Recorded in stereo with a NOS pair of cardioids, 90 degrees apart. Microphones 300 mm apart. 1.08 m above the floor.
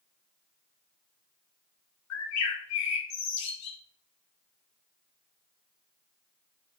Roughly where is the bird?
Ahead left.